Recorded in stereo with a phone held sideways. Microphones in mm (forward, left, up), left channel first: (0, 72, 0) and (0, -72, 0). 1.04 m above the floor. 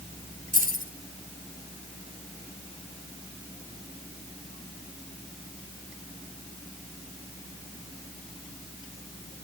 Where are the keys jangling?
70° right (ahead or behind), 3.5 m.